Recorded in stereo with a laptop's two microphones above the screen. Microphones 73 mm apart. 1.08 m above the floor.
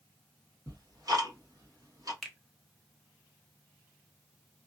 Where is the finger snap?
5° left (ahead or behind), 0.9 m.